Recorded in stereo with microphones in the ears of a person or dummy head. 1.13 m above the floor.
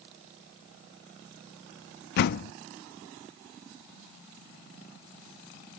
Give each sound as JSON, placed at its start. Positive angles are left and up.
{"t": 2.2, "sound": "a door slam", "side_deg": 60}